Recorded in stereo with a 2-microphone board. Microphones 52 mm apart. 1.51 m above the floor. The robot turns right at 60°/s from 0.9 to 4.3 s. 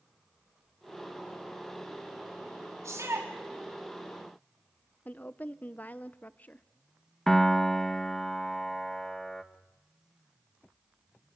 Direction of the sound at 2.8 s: 90° right.